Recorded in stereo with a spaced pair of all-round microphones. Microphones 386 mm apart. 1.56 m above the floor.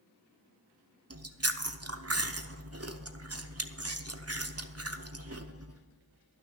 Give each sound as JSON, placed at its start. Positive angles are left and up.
{"t": 1.1, "sound": "chewing", "side_deg": -40, "distance_m": 0.7}